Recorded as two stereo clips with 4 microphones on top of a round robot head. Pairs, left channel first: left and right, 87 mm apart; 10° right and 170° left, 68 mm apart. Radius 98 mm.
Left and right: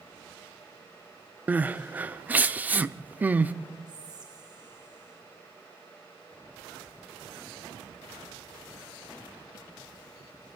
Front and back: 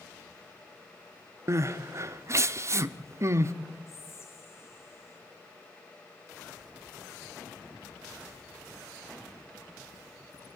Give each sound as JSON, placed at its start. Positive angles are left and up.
{"t": 1.5, "sound": "crying", "azimuth_deg": -160, "distance_m": 0.8}
{"t": 3.9, "sound": "whispering", "azimuth_deg": -55, "distance_m": 3.0}